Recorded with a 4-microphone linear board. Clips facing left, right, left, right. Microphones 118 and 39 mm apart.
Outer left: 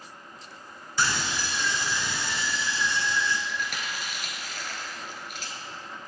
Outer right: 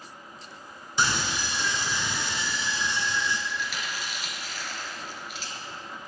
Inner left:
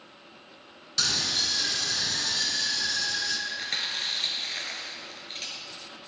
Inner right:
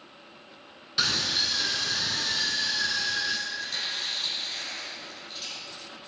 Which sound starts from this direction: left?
Chewing, at 3.5 s.